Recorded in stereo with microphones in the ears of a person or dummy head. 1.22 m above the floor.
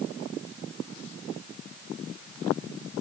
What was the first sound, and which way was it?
Only background noise.